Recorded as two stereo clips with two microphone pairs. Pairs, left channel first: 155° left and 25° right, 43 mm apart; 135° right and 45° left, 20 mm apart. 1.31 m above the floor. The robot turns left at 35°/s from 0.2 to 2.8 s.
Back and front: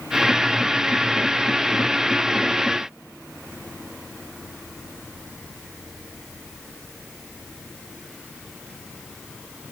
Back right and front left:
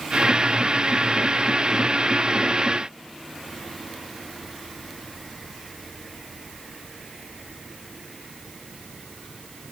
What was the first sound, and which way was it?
Only background noise.